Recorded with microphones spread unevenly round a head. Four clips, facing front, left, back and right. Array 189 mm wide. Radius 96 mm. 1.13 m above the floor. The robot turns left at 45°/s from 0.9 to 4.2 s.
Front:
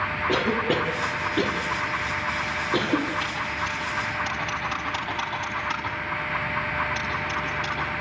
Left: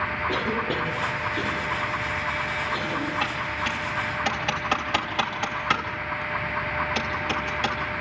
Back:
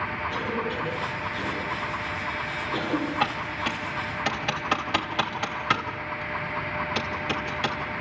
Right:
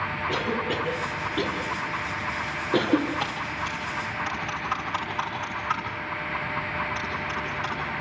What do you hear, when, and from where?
0.3 s a cough: 15° left, 2.5 m; by 3.1 s 85° right, 2.5 m
3.2 s typing on a keyboard: 170° right, 2.5 m; by 7.8 s 145° left, 2.5 m